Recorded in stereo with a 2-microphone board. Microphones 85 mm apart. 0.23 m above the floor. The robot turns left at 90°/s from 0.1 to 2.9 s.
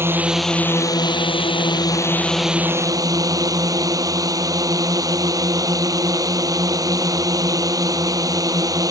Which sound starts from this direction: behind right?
A drone, at 0.0 s.